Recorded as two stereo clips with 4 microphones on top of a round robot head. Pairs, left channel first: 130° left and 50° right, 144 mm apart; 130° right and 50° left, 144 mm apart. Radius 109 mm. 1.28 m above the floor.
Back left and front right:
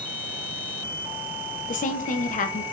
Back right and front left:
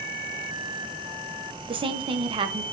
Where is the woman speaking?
105° left, 1.0 m.